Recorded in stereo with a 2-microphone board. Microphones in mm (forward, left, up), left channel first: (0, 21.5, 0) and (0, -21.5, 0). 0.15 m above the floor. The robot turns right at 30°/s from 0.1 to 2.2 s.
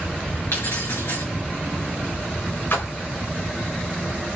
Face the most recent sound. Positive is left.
turn(degrees=60)  # may be behind; listen again after turning